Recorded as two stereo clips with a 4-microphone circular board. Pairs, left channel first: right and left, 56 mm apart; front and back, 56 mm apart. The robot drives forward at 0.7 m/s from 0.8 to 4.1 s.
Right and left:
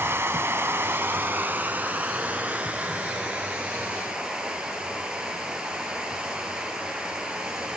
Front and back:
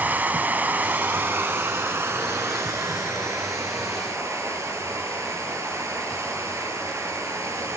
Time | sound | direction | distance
0.0 | running water | 125° left | 1.3 m